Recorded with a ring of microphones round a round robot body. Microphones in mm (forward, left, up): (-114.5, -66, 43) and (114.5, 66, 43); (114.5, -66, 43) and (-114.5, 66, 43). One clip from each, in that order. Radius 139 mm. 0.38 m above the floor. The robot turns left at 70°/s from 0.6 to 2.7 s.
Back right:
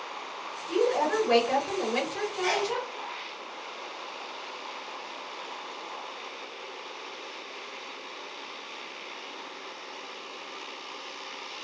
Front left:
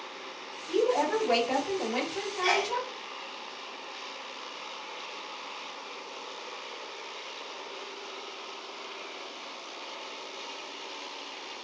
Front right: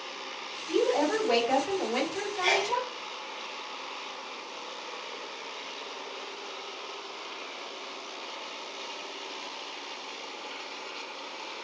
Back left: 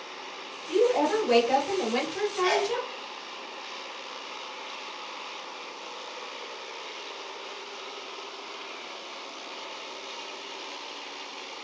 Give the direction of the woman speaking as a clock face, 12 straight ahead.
2 o'clock.